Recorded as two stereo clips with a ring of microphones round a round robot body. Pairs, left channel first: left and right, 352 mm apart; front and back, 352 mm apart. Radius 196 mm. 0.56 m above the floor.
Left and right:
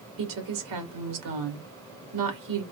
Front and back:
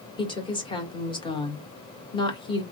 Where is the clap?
I don't hear a clap.